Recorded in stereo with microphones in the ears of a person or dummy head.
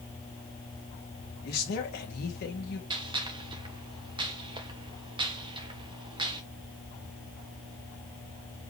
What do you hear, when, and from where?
1.4 s a man speaking: 55° left (ahead or behind), 2 m
2.9 s a gunshot: 20° right (ahead or behind), 1.0 m